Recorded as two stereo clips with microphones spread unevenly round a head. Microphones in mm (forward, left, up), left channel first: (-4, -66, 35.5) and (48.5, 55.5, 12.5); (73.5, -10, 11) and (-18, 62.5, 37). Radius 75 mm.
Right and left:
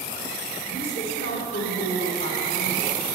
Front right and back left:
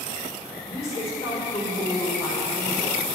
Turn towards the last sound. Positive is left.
turn(degrees=-110)